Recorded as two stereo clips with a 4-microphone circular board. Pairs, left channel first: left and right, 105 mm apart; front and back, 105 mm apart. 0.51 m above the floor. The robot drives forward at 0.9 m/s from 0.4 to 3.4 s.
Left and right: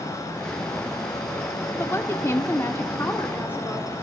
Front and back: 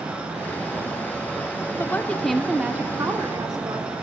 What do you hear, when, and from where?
1.8 s a woman speaking: 45° left, 1.3 m; by 3.9 s 150° left, 1.6 m